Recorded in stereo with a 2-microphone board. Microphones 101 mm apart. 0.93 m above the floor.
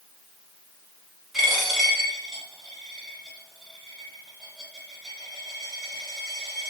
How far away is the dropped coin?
About 1.2 m.